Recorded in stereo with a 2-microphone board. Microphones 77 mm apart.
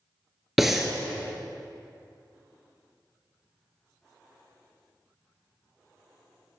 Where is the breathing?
5° right (ahead or behind), 0.8 m.